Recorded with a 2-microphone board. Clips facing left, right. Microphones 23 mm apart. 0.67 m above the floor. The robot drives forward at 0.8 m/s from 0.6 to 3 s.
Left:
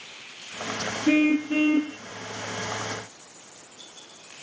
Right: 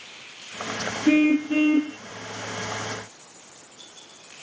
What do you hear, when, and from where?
1.1 s a car horn: 5° right (ahead or behind)